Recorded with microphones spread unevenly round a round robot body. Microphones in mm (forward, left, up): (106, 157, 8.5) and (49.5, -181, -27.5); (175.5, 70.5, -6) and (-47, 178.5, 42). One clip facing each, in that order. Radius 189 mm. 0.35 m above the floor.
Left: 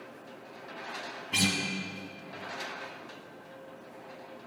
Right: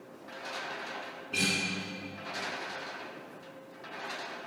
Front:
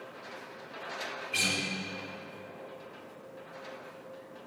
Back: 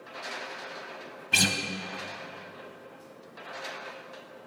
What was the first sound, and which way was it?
A guitar, 145° left.